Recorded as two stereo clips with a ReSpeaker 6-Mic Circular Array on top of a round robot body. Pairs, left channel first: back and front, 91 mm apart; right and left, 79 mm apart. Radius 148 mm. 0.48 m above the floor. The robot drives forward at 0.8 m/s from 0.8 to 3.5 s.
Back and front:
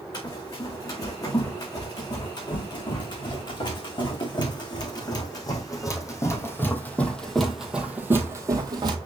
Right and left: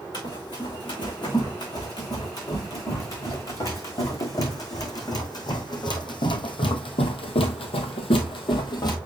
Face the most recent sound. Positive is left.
turn(degrees=-45)